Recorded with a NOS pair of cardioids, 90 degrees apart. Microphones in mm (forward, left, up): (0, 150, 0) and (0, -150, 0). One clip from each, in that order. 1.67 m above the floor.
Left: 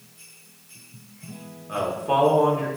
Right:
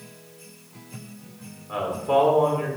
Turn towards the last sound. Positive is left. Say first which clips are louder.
# right 1 dB
turn(degrees=25)